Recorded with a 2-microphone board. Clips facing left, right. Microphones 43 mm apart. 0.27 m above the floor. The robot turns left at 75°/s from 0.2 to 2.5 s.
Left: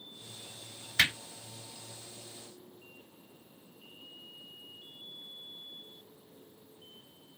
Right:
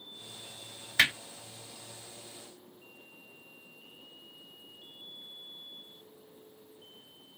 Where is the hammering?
10° right (ahead or behind), 1.4 m; by 1.1 s 20° right (ahead or behind), 1.4 m.